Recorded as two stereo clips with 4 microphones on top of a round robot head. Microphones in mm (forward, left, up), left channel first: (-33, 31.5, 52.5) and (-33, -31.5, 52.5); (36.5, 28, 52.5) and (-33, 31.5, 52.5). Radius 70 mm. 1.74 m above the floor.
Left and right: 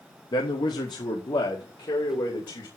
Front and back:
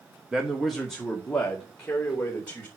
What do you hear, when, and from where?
0.3 s a man speaking: 95° left, 1.3 m; by 2.7 s 65° left, 3.5 m